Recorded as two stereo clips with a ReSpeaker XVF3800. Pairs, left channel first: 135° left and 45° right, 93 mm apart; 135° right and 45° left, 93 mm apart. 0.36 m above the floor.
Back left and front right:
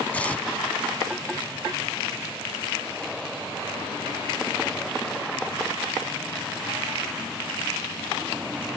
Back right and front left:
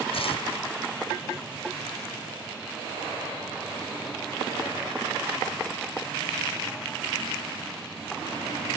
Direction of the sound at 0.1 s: 150° right.